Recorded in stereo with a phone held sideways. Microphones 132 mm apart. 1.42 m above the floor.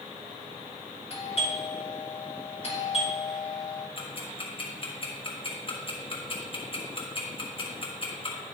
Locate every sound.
1.1 s a doorbell: 45° left (ahead or behind), 3 m
4.0 s ticking: 40° left (ahead or behind), 1.7 m